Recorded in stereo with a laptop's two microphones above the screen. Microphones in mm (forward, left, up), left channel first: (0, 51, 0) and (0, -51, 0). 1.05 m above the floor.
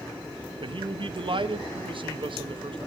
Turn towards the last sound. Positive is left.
turn(degrees=-55)  # may be behind; listen again after turning